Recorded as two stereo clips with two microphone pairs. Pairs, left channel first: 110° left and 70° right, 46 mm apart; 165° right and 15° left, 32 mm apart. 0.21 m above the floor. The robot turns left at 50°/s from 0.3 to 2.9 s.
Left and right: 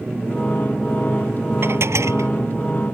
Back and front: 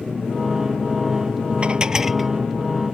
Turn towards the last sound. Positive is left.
turn(degrees=-100)